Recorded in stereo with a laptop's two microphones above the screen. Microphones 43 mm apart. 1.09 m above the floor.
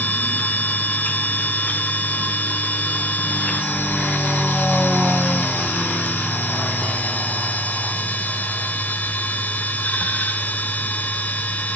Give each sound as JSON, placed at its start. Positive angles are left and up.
{"t": 0.0, "sound": "a machine running", "side_deg": 40, "distance_m": 1.3}